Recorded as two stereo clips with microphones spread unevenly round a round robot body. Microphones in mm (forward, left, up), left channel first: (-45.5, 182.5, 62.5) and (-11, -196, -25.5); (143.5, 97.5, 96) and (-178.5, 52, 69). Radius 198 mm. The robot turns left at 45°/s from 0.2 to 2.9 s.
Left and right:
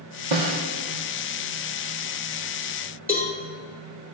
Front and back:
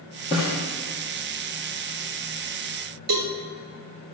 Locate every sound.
0.3 s a snare drum: 65° right, 2.5 m; by 0.6 s 80° right, 2.5 m
3.1 s a cowbell: straight behind, 3 m